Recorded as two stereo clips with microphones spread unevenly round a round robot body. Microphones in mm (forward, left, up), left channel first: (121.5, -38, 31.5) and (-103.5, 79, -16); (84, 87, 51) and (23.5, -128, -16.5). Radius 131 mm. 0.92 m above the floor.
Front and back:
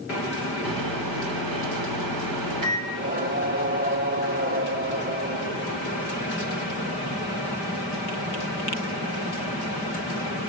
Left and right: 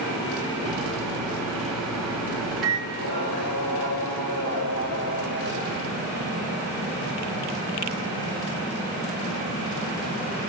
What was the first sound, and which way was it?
A microwave, 165° left.